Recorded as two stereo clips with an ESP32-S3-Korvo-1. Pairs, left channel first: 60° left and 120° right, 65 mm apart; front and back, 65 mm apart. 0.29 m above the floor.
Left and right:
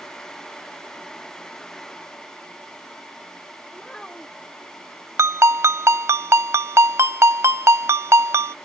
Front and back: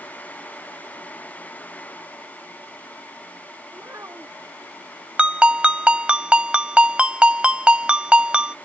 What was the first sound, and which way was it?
A child speaking, 140° left.